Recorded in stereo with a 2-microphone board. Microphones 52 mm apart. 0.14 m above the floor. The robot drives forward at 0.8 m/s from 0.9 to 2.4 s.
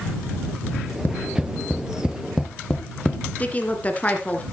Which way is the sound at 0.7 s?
35° left (ahead or behind).